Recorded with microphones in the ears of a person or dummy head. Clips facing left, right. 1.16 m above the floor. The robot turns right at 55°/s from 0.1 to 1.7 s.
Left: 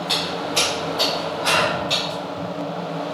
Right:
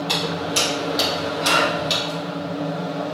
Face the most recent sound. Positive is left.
turn(degrees=-25)  # may be behind; listen again after turning